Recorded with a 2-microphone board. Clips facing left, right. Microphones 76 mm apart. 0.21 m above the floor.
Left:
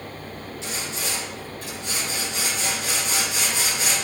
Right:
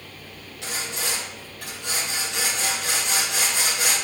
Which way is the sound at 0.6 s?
65° right (ahead or behind).